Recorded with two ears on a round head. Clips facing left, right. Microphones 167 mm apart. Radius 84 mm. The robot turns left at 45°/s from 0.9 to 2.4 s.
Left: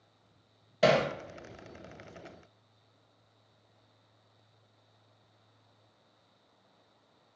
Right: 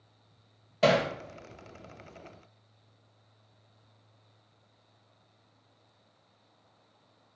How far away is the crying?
No crying in this recording.